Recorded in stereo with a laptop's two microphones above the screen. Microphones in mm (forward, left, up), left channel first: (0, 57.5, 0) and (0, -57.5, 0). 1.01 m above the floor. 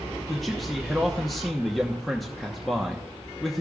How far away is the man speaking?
About 0.9 m.